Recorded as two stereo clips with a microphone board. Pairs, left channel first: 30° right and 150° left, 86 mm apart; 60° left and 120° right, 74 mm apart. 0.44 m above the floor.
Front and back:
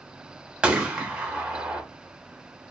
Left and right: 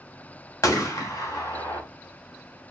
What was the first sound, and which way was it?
A gunshot, 75° left.